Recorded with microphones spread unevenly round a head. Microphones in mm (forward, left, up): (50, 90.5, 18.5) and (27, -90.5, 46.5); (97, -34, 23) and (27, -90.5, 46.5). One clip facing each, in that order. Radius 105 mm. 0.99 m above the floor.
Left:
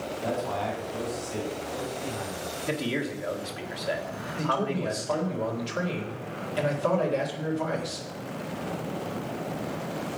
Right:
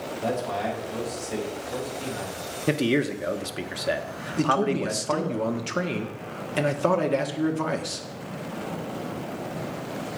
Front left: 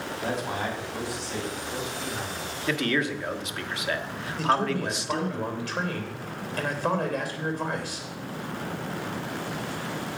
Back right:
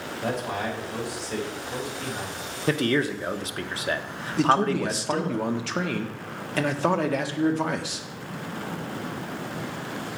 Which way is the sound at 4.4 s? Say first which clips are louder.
Right 5 dB, back right 4 dB; 140° right.